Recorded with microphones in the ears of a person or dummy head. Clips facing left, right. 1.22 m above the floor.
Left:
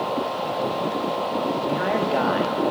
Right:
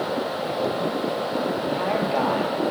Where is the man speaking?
20° left (ahead or behind), 2 m.